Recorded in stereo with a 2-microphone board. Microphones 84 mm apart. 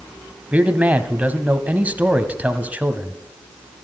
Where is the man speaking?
20° right (ahead or behind), 1.0 m.